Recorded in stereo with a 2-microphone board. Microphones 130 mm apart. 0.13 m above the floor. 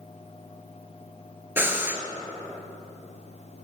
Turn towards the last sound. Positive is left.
turn(degrees=-15)  # may be behind; listen again after turning